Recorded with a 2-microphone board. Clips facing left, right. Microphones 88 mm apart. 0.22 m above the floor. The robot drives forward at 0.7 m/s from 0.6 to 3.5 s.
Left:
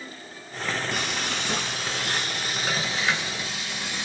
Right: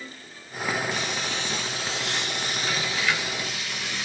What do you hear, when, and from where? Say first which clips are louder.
0.9 s frying: even; 65° left (ahead or behind), 1.0 m; by 4.0 s 25° left (ahead or behind), 1.9 m